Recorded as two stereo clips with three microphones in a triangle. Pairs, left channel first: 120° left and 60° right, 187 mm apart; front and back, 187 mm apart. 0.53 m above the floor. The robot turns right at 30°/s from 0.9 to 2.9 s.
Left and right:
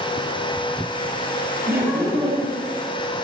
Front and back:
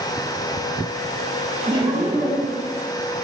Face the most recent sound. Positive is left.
turn(degrees=-95)